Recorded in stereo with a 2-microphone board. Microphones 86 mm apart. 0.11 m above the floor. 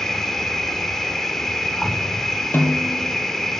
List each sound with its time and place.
0.0 s an insect: 5° left (ahead or behind), 0.9 m
2.5 s a snare drum: 25° left (ahead or behind), 1.0 m